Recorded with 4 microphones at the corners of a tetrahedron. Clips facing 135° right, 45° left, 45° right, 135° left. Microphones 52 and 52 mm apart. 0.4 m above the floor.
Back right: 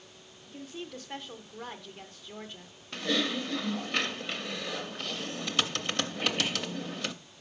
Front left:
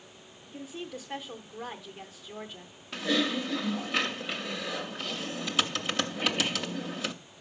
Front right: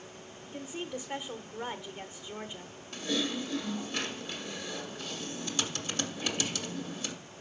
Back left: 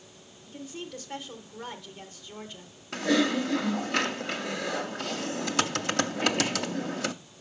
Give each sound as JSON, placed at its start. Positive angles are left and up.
{"t": 0.5, "sound": "a woman speaking", "azimuth_deg": -35, "distance_m": 0.8}
{"t": 2.9, "sound": "typing on a keyboard", "azimuth_deg": 135, "distance_m": 0.5}